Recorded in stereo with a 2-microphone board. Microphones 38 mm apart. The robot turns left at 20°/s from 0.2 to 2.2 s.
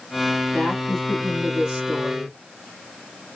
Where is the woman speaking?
5° right (ahead or behind), 1.2 m; by 2.4 s 20° right (ahead or behind), 1.2 m.